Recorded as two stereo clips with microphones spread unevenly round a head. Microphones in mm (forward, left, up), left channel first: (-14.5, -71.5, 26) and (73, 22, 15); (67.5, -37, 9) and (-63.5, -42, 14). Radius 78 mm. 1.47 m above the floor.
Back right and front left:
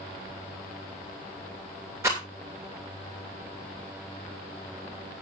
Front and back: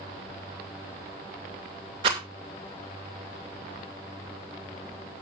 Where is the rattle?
120° left, 2.5 m.